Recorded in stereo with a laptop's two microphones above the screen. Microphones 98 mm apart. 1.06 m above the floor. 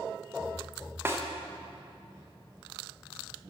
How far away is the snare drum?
About 1.4 m.